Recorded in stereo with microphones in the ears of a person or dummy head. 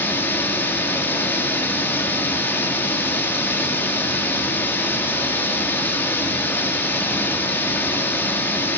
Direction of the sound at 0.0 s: 10° left (ahead or behind).